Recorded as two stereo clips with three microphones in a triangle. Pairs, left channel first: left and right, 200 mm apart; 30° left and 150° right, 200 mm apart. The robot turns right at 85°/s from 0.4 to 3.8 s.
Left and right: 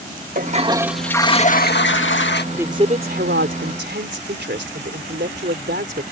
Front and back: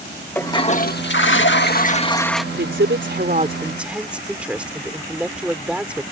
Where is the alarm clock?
No alarm clock in this recording.